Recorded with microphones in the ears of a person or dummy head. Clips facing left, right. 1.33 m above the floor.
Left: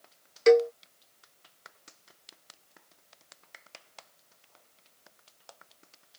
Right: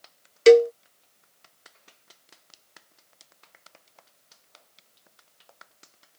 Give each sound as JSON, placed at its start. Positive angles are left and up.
{"t": 0.5, "sound": "a cowbell", "side_deg": -45}